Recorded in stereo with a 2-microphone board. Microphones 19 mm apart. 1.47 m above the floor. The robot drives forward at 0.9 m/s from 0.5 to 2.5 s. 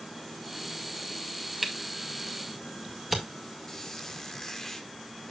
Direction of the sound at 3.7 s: 20° left (ahead or behind).